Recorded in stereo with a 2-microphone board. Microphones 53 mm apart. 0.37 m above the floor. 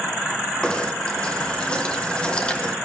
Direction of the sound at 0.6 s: 20° left (ahead or behind).